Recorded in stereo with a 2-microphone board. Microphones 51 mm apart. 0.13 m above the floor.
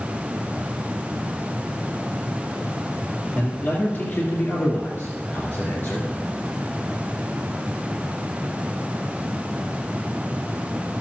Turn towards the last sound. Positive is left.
turn(degrees=50)  # may be behind; listen again after turning